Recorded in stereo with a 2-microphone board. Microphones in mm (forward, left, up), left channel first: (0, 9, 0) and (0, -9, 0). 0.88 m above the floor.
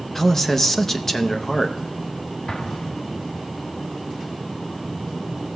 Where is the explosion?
45° left (ahead or behind), 0.6 m.